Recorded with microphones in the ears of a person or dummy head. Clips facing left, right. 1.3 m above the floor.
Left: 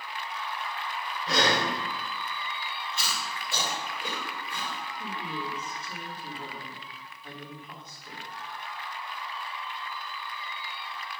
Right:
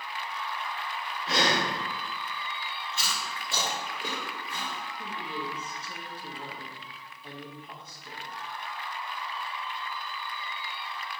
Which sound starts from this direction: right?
Chewing, at 2.9 s.